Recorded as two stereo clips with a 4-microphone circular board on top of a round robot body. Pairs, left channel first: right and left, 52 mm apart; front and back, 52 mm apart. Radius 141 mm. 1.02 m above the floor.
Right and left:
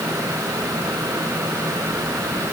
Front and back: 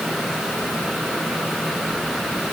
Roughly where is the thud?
I don't hear a thud.